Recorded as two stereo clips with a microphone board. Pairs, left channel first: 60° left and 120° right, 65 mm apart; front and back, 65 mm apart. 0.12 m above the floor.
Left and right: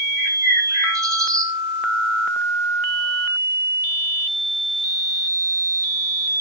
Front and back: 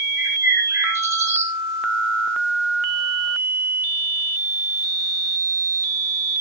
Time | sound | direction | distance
0.2 | a bird | 130° right | 3 m